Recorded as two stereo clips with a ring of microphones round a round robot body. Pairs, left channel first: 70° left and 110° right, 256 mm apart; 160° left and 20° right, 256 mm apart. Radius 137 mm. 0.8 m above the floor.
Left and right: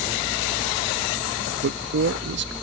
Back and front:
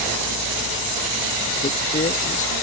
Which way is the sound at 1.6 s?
145° right.